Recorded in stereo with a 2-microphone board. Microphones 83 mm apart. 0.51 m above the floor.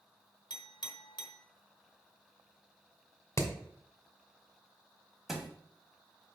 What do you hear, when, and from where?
0.5 s a clink: 60° left (ahead or behind), 1.1 m
3.4 s hammering: 35° left (ahead or behind), 1.3 m
5.3 s a thud: 5° right (ahead or behind), 1.5 m